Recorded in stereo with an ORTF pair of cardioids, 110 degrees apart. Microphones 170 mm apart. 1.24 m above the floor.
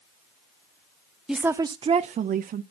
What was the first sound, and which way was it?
A woman speaking, 5° right.